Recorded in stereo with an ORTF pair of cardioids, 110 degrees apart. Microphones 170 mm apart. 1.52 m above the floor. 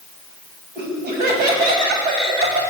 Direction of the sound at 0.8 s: 65° right.